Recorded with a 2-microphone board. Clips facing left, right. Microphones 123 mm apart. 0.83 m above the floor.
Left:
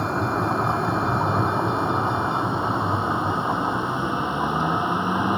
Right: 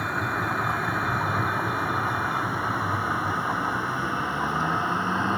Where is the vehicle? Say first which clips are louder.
Left 5 dB; 30° left (ahead or behind); by 5.4 s 15° left (ahead or behind).